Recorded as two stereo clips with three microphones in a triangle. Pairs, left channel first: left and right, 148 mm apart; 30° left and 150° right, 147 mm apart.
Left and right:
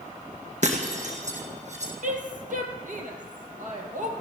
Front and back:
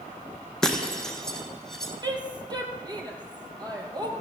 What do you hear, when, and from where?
0.6 s breaking glass: 55° right, 2.5 m
2.0 s a woman speaking: 95° right, 3.5 m